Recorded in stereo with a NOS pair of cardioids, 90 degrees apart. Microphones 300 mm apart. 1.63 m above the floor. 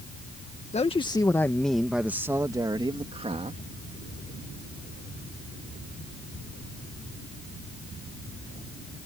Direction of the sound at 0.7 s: 20° left.